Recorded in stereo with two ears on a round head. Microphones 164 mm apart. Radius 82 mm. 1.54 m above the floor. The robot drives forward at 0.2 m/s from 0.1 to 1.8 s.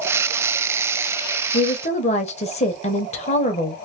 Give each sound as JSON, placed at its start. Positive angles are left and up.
{"t": 1.5, "sound": "a woman speaking", "side_deg": 35, "distance_m": 0.8}